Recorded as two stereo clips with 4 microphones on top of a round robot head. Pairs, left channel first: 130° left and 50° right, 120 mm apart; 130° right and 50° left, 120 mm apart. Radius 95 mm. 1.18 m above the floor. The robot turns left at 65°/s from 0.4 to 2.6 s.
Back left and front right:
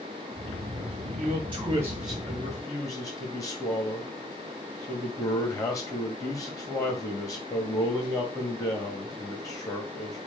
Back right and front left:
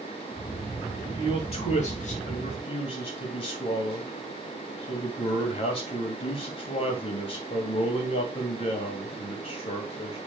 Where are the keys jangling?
No keys jangling in this recording.